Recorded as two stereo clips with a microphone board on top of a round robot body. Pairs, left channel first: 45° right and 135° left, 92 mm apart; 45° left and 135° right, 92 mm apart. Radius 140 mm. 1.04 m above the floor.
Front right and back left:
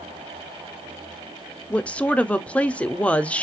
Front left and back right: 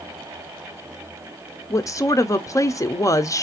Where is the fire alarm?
No fire alarm in this recording.